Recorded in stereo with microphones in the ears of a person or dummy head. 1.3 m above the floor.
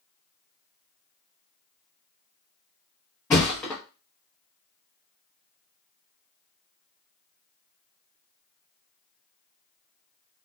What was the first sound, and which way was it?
A thud, 10° left (ahead or behind).